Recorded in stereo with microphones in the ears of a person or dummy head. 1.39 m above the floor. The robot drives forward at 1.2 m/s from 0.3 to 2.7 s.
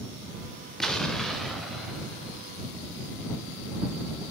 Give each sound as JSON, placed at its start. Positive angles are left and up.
{"t": 0.8, "sound": "an explosion", "side_deg": 5, "distance_m": 2.0}